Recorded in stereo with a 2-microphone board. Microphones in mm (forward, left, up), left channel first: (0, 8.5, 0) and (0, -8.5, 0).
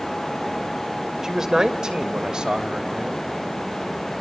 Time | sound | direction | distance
1.2 | a man speaking | 40° right (ahead or behind) | 3 m